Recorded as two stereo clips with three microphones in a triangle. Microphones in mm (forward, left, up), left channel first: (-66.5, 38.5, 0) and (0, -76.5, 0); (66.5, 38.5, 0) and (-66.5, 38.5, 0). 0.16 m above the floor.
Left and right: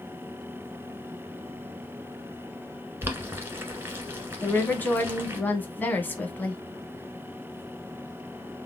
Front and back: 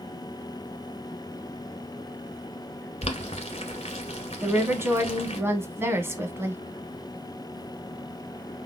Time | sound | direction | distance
3.0 | boiling | 10° left | 1.1 m
4.4 | a woman speaking | 165° left | 1.0 m